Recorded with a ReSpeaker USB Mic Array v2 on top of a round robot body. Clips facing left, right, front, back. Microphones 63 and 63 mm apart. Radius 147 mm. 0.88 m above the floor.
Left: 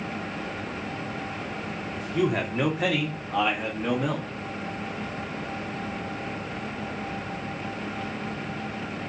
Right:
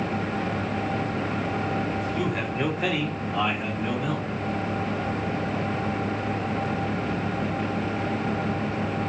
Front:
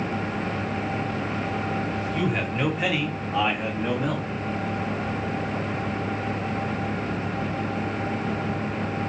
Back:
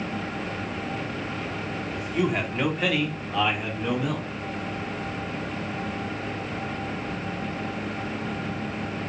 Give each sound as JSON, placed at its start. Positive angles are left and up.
{"t": 2.0, "sound": "a man speaking", "azimuth_deg": 110, "distance_m": 1.4}